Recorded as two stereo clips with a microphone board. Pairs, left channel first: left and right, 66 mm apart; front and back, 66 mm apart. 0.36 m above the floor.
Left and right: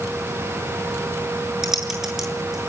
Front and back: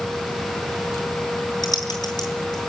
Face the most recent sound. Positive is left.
turn(degrees=-5)